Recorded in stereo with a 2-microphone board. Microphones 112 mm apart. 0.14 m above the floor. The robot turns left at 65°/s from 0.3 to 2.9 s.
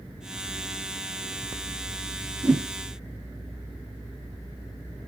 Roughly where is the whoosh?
Centre.